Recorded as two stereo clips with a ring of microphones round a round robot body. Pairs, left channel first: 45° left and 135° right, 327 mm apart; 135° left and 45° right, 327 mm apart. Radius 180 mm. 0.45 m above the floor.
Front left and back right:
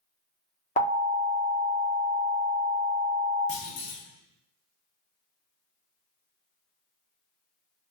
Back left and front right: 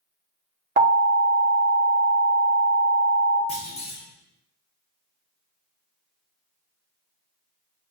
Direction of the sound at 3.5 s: 70° left.